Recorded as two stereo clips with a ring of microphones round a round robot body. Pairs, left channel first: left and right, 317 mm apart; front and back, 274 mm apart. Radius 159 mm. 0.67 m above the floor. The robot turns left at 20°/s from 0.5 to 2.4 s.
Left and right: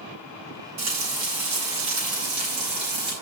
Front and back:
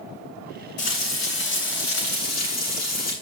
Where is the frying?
60° right, 9 m; by 3.1 s 90° right, 9 m.